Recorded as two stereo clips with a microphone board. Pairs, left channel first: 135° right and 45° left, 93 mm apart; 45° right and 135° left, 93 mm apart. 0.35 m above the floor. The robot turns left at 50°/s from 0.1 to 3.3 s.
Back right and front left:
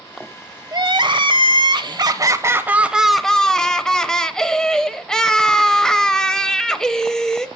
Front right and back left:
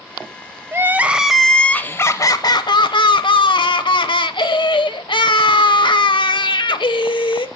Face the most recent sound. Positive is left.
turn(degrees=-50)